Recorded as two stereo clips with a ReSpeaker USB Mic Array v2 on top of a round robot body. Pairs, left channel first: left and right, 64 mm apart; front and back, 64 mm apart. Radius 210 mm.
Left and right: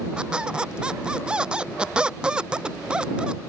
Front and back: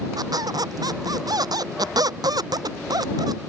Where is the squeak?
165° right.